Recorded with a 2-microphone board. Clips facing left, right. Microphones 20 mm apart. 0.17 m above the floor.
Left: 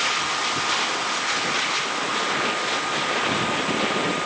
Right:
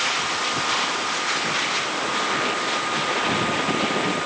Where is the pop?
No pop in this recording.